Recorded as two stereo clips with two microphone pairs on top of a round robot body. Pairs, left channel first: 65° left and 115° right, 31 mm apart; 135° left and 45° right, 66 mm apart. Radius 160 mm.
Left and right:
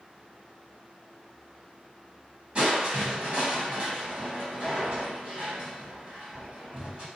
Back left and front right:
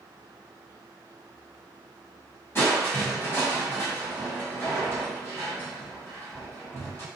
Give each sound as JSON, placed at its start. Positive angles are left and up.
{"t": 2.5, "sound": "crushing", "azimuth_deg": -165, "distance_m": 1.4}